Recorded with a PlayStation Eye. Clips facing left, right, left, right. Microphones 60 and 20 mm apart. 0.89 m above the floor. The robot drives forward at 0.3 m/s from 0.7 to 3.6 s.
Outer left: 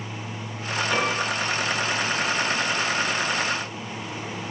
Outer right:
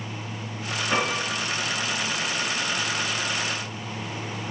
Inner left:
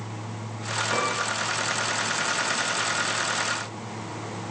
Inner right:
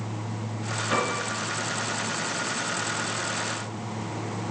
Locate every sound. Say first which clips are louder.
0.9 s a piano: even, inner right 1 dB; 20° right (ahead or behind), 3 m